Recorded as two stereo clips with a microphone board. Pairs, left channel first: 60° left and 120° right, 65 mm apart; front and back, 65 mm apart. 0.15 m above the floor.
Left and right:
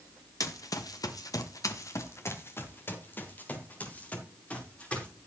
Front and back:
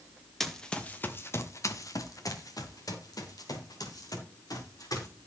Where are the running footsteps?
85° left, 1.8 m; by 5.1 s 10° right, 6 m.